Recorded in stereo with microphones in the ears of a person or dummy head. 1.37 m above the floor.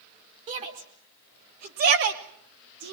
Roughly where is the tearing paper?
I don't hear tearing paper.